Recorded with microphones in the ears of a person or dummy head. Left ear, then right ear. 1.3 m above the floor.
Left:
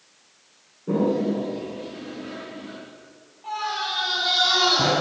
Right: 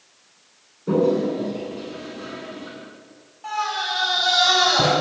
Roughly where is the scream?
Right.